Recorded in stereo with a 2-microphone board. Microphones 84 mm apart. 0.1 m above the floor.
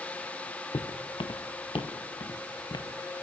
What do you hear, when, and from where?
0.7 s footsteps: 85° left, 1.6 m; by 2.9 s 60° left (ahead or behind), 3.5 m